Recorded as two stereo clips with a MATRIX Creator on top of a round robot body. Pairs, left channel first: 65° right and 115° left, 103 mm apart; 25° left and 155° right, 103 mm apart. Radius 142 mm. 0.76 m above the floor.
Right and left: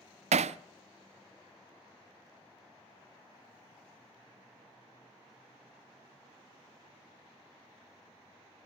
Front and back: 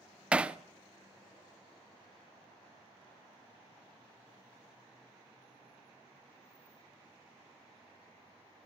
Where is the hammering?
125° left, 0.5 m.